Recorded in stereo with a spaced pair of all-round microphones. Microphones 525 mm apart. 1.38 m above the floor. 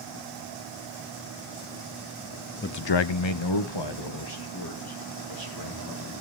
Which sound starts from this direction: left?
A man speaking, at 2.6 s.